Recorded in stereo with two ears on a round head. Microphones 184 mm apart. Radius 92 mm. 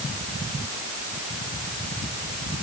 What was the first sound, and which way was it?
Only background noise.